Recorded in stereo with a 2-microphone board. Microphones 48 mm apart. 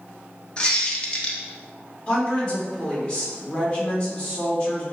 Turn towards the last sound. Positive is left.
turn(degrees=20)  # may be behind; listen again after turning